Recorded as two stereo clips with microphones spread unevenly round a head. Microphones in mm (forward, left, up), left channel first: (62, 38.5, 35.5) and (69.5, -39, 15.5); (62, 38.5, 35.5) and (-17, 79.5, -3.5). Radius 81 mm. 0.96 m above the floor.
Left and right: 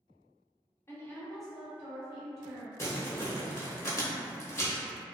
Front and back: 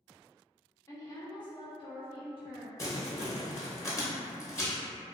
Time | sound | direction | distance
0.9 | a woman speaking | 45° left | 0.8 m
2.8 | crumpling | 45° left | 0.8 m